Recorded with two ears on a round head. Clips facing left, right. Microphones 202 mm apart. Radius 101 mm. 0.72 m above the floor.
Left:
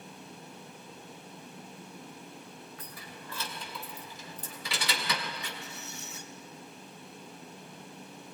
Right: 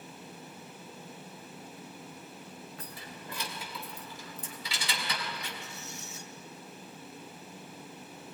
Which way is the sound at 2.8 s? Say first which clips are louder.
Right 1 dB; 30° right (ahead or behind).